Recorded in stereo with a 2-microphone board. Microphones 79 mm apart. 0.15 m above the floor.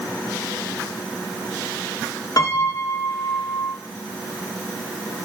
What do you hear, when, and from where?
2.4 s a piano: 50° left (ahead or behind), 2.5 m